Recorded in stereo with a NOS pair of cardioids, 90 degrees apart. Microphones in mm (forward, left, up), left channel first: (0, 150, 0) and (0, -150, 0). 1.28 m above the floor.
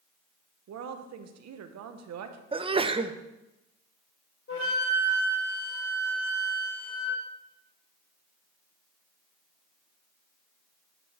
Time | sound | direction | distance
0.7 | a woman speaking | 65° right | 1.1 m
2.5 | a sneeze | 20° right | 0.8 m
4.5 | a flute | 45° left | 3.5 m